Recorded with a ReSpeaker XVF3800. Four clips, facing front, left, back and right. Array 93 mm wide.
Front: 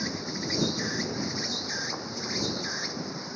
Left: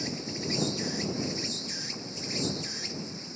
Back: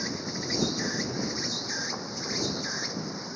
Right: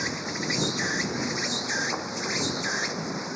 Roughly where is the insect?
Right.